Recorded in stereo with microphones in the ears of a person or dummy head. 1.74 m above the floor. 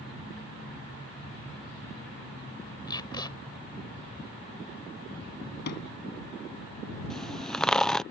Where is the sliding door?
60° left (ahead or behind).